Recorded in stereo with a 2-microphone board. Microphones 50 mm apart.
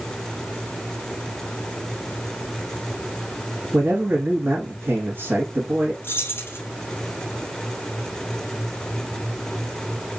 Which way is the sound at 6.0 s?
50° left (ahead or behind).